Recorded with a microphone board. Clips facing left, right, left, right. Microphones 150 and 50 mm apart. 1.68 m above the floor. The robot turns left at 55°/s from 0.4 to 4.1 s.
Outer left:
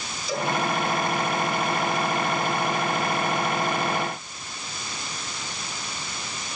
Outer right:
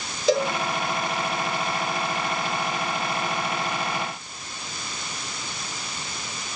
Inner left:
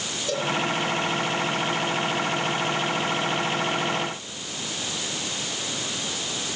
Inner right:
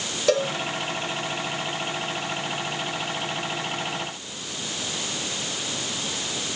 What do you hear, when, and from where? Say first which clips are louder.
0.3 s a cowbell: outer right 7 dB, inner right 6 dB; 80° right, 5 m; by 0.5 s 75° right (ahead or behind), 5 m